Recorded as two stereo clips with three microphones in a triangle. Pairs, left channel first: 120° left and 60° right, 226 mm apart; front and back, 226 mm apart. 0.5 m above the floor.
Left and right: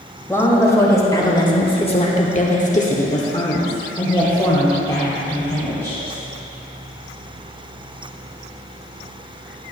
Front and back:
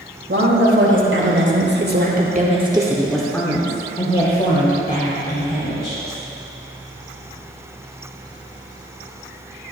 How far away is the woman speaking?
About 2 m.